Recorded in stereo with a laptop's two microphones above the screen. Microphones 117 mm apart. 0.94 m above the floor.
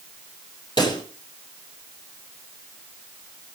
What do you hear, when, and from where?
0.8 s a pop: 35° left (ahead or behind), 8.5 m